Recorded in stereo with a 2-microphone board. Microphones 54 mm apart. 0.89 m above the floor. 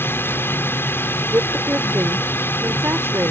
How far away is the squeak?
I don't hear a squeak.